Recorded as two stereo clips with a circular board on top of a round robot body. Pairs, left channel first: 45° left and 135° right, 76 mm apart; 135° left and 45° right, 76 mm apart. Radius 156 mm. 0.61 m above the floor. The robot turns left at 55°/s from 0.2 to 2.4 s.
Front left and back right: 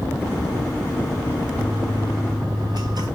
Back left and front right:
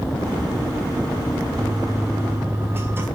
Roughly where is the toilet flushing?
Ahead right.